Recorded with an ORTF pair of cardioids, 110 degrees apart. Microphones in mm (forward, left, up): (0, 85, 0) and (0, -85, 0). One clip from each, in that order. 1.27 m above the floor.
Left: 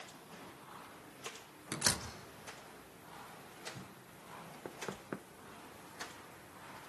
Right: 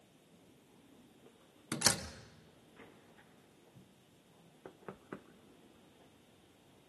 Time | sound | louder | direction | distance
1.7 | a door slam | right 2 dB | 20° right | 2 m
4.7 | knocking | left 5 dB | 25° left | 0.9 m